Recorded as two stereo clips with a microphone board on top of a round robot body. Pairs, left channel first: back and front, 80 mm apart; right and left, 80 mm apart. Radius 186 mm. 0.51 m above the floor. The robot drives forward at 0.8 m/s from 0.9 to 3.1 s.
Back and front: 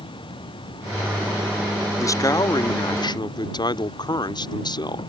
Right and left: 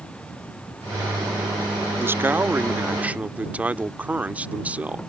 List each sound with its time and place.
0.0 s an insect: 165° right; by 5.1 s 170° right
2.0 s a man speaking: 140° left; by 5.0 s 160° left